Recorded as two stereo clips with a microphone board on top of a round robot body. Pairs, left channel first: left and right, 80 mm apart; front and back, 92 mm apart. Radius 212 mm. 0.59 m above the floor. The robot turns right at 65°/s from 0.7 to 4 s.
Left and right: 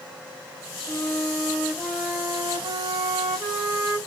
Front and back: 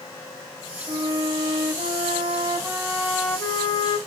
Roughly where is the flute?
Behind left.